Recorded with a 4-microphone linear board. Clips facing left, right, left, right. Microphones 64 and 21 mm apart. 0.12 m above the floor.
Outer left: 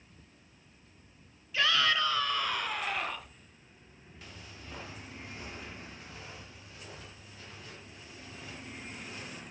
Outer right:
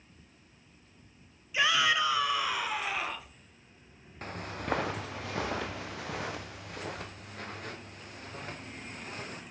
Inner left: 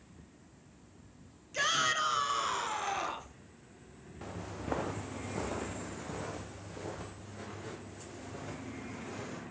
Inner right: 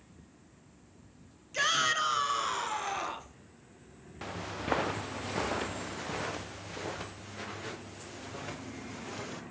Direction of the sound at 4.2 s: 50° right (ahead or behind).